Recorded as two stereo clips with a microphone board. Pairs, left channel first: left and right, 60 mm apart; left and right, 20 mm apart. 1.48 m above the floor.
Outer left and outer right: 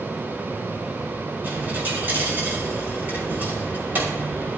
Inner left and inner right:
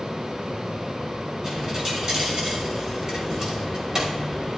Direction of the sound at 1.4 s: 30° right (ahead or behind).